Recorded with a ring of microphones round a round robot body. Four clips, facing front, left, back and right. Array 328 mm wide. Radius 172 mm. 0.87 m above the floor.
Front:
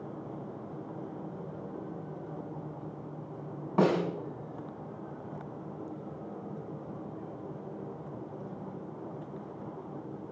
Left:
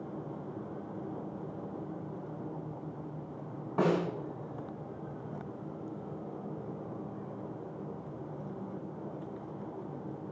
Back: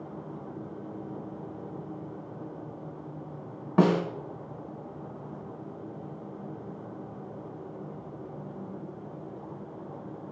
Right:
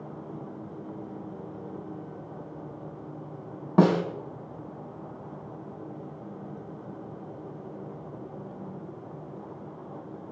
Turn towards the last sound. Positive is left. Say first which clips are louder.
# right 7 dB, back 3 dB
turn(degrees=-110)